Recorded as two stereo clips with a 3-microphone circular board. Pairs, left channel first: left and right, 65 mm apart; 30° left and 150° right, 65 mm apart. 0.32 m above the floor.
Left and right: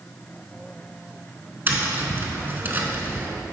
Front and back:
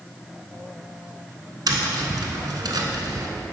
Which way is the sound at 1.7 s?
150° right.